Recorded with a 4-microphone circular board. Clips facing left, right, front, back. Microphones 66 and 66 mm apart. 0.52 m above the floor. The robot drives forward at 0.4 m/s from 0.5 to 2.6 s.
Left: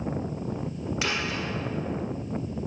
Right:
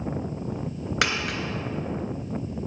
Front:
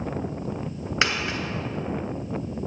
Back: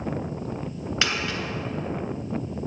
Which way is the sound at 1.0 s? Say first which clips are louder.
Right 4 dB, front 2 dB; 70° right.